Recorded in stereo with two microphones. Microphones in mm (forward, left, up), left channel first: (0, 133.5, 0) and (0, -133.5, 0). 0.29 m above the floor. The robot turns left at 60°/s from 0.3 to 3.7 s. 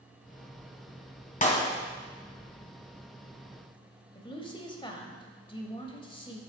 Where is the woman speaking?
20° left (ahead or behind), 1.3 m.